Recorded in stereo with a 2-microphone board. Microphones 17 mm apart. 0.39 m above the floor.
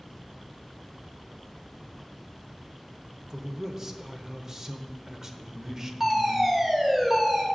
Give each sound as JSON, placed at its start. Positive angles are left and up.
{"t": 3.3, "sound": "a man speaking", "side_deg": -30, "distance_m": 0.9}
{"t": 6.0, "sound": "a fire alarm", "side_deg": -20, "distance_m": 2.0}